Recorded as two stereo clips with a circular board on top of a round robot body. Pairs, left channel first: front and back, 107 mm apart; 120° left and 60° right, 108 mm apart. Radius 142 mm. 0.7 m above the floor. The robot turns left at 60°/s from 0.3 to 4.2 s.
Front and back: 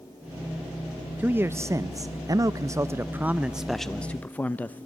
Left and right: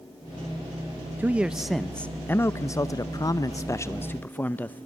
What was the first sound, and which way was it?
A man speaking, 120° right.